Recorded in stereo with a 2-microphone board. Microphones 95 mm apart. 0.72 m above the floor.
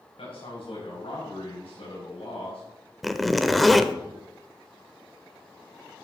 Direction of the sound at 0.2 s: 75° left (ahead or behind).